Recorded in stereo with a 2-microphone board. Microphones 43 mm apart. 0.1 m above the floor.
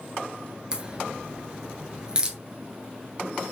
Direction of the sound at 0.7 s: 20° right (ahead or behind).